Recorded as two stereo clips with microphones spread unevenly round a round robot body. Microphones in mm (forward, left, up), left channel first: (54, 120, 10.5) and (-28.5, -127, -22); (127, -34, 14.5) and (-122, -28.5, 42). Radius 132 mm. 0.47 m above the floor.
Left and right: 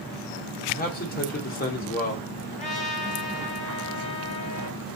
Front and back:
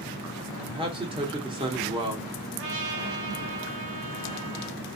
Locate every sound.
0.7 s a man speaking: 115° left, 1.3 m
2.5 s a trumpet: 135° left, 1.3 m